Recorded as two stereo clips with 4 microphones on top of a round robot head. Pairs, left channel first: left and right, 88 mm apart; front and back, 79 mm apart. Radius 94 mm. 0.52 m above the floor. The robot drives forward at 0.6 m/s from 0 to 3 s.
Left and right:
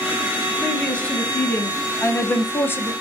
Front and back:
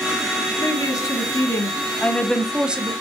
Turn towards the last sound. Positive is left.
turn(degrees=135)